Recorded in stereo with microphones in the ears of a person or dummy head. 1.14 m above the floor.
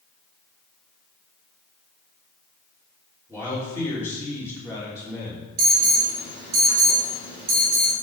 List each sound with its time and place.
3.3 s a man speaking: 15° right (ahead or behind), 3 m
5.6 s an alarm: 50° right (ahead or behind), 2.5 m